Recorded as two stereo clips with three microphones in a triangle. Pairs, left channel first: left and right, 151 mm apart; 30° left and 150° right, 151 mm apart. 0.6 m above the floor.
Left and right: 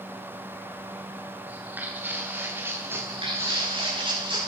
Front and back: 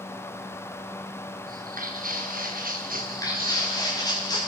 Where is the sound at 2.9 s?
35° right, 9 m.